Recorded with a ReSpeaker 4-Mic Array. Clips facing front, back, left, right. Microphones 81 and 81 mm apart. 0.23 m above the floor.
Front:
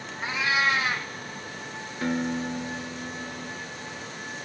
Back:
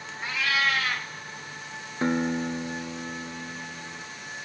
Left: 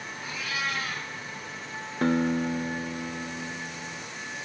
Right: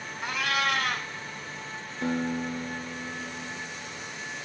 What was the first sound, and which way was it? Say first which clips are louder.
A cat meowing: front 1 dB, right 6 dB; 70° right.